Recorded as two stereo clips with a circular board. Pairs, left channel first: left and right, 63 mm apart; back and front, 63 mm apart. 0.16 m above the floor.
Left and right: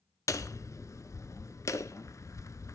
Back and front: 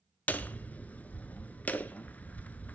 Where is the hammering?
115° left, 0.6 m.